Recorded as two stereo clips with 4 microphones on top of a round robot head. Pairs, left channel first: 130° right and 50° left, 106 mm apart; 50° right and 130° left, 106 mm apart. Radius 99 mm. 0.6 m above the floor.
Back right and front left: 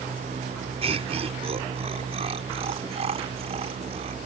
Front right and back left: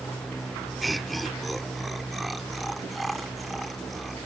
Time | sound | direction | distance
0.8 | laughter | 40° left | ?